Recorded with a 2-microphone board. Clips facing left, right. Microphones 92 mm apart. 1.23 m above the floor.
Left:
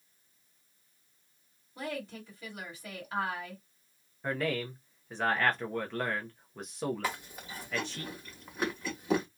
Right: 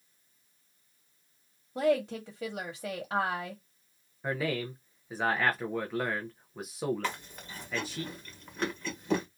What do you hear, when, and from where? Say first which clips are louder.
1.8 s a woman speaking: right 11 dB; 70° right (ahead or behind), 1.0 m
4.2 s a man speaking: even; 5° right (ahead or behind), 0.5 m
7.0 s chewing: even; 10° left (ahead or behind), 1.2 m